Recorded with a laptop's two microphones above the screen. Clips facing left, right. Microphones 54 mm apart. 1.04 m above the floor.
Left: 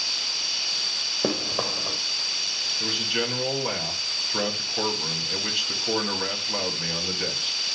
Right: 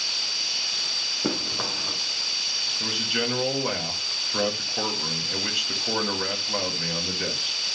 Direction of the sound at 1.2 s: 65° left (ahead or behind).